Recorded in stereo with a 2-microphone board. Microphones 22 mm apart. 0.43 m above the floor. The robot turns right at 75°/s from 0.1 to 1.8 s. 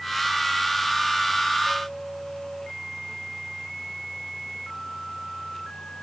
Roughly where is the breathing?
No breathing in this recording.